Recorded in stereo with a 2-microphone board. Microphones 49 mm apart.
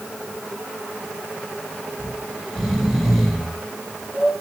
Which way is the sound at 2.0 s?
5° right (ahead or behind).